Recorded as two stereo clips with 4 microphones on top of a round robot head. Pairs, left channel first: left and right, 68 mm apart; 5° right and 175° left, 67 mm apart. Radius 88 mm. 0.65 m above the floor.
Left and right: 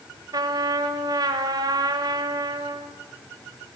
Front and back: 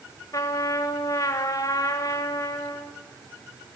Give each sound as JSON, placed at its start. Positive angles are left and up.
{"t": 0.3, "sound": "a trumpet", "azimuth_deg": -50, "distance_m": 1.5}